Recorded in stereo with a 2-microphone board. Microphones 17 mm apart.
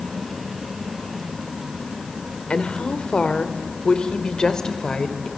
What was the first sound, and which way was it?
A woman speaking, 65° left (ahead or behind).